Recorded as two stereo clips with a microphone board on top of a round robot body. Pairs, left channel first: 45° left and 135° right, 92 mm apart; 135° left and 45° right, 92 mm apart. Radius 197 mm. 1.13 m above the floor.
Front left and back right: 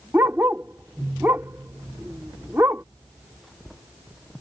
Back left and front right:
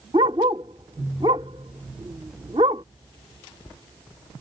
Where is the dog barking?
70° right.